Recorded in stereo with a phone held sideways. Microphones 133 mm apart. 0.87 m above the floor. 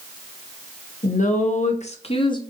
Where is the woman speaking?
65° left (ahead or behind), 0.8 m; by 2.4 s 30° left (ahead or behind), 0.6 m.